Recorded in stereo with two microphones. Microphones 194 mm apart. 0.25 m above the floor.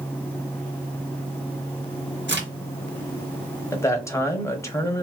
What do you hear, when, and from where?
2.3 s a crack: 60° right (ahead or behind), 3 m
3.7 s a man speaking: 15° left (ahead or behind), 1.1 m